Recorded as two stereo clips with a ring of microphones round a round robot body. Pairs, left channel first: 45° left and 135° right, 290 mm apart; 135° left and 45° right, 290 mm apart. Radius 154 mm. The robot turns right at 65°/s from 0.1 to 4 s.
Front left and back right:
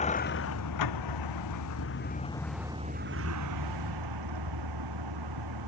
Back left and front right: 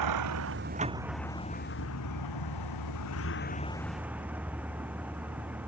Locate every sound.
0.0 s a vehicle: 25° right; by 5.7 s 130° right